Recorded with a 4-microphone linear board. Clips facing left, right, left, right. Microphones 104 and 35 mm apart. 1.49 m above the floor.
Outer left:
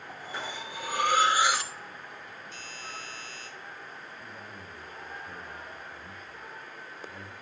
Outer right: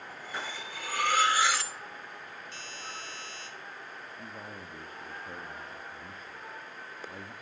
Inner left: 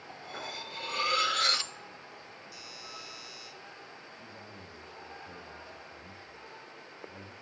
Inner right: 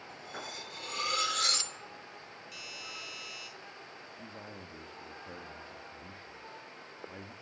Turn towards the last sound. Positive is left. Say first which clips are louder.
# outer right 1 dB, inner right 1 dB
turn(degrees=-35)  # may be behind; listen again after turning